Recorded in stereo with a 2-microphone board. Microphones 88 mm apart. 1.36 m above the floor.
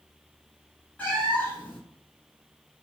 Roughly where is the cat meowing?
Centre.